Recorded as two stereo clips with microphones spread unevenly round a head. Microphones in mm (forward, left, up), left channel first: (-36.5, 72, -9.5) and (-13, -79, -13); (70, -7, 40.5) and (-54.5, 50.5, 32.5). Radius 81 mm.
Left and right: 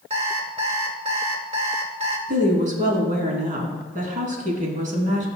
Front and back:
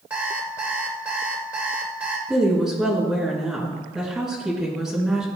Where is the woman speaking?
120° right, 3 m.